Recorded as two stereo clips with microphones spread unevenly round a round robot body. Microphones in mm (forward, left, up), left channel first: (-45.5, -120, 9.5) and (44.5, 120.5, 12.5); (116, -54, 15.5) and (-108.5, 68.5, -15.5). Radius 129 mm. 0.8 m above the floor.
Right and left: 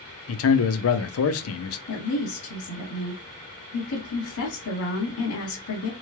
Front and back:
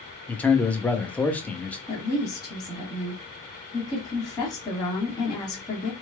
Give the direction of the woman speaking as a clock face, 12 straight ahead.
4 o'clock.